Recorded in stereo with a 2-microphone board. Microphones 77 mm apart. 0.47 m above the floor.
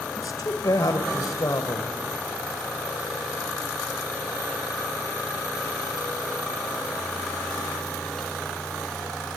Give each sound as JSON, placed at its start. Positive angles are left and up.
{"t": 0.2, "sound": "a woman speaking", "side_deg": 60, "distance_m": 1.7}